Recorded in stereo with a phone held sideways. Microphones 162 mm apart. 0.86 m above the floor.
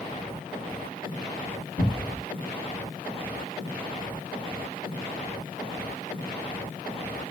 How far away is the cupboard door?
About 1.8 m.